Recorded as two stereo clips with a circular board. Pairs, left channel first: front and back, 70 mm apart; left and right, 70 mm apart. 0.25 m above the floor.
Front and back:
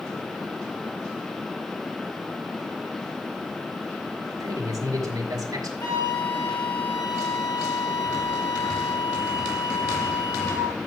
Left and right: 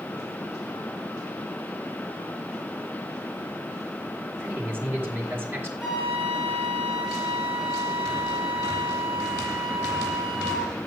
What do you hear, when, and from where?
4.4 s a man speaking: 150° right, 4.5 m
5.8 s a flute: 10° right, 5 m